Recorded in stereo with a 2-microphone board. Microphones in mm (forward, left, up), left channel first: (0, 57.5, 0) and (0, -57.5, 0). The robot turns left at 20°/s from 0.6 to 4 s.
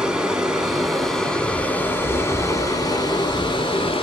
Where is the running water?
175° right, 1.0 m; by 4.0 s 120° left, 1.0 m.